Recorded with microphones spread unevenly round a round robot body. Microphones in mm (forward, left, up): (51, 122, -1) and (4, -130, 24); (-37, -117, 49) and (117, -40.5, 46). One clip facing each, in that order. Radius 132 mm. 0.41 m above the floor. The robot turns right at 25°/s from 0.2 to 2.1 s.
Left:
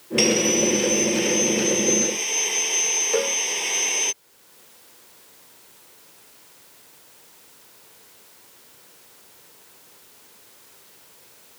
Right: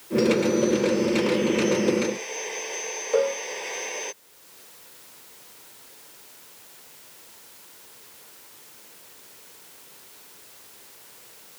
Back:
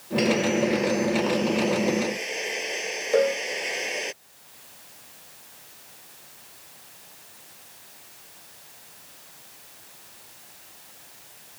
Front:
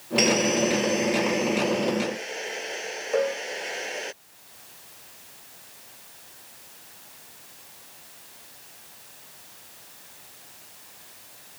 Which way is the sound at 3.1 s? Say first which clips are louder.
Right 2 dB, back 4 dB; 140° left.